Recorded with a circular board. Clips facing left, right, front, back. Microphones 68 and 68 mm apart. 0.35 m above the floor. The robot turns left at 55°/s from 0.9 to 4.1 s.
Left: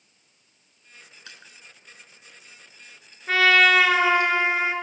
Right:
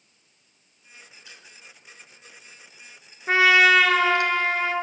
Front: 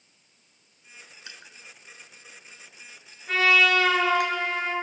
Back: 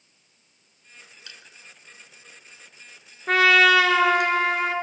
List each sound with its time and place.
1.3 s crushing: 65° left, 1.4 m; by 4.3 s 90° right, 1.4 m
3.3 s a trumpet: 155° right, 1.4 m; by 4.7 s 160° left, 1.4 m